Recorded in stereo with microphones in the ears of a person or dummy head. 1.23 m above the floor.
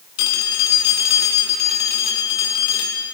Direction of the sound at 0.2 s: 70° left (ahead or behind).